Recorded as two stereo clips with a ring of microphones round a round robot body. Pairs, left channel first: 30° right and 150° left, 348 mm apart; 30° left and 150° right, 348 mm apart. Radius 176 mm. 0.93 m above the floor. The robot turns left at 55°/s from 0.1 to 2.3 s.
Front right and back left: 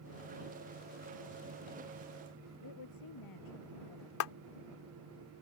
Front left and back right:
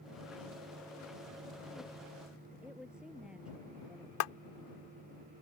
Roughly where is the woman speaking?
Ahead right.